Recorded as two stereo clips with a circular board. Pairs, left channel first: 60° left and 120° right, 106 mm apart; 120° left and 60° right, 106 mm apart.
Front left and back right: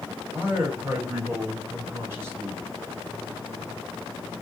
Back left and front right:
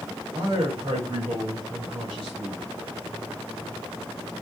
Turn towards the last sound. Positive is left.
turn(degrees=-60)